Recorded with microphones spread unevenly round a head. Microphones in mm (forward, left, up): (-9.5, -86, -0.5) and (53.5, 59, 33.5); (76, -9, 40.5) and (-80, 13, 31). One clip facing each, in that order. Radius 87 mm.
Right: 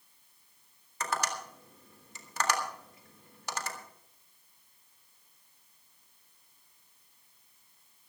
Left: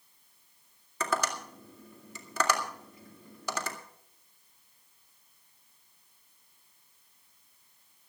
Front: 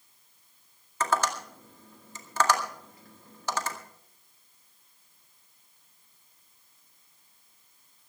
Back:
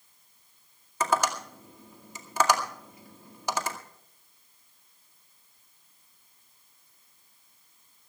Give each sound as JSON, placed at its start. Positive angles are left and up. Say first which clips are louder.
{"t": 1.0, "sound": "tapping", "louder": "left 3 dB, back 1 dB", "azimuth_deg": 95, "distance_m": 2.0}